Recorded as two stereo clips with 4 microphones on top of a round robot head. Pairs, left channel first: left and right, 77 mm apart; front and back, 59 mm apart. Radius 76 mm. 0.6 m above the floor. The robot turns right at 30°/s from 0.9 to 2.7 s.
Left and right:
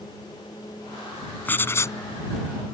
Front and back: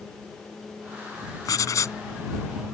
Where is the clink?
I don't hear a clink.